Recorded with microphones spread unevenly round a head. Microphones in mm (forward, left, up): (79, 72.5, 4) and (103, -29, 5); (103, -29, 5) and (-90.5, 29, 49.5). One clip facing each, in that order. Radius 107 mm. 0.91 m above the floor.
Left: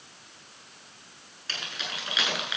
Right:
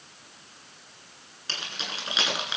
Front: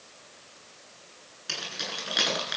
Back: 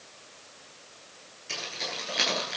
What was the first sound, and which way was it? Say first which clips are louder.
Keys jangling: even, back 1 dB; 20° right.